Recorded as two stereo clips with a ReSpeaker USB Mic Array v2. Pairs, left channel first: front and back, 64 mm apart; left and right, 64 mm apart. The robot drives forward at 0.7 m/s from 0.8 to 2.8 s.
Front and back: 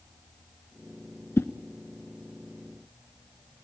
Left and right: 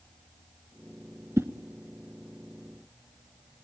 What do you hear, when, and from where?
1.4 s a whoosh: 45° right, 1.1 m; by 1.5 s 50° right, 1.1 m